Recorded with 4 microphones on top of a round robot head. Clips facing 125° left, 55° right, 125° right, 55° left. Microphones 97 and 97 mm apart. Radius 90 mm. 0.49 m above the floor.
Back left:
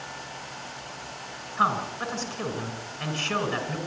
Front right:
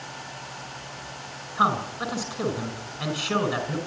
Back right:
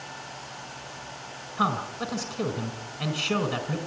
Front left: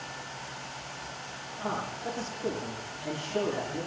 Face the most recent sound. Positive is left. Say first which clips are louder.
# front right 2 dB, back right 7 dB
turn(degrees=-135)